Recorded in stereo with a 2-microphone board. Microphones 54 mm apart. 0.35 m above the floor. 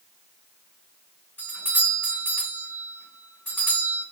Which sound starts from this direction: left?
A doorbell, at 1.4 s.